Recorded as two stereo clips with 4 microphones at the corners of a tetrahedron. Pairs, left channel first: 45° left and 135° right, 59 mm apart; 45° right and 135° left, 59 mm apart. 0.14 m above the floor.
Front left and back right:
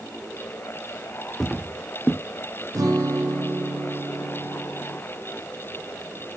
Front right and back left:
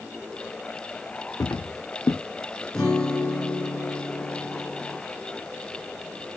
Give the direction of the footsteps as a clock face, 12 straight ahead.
1 o'clock.